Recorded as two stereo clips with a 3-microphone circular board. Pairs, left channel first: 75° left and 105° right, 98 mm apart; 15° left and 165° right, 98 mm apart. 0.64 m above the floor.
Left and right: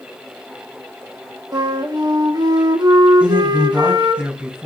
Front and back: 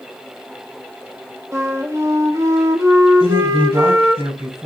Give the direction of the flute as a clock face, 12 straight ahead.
4 o'clock.